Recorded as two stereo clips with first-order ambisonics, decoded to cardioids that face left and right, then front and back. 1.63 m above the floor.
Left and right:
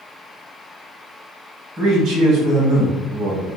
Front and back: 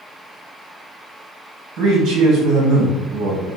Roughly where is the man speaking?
Behind right.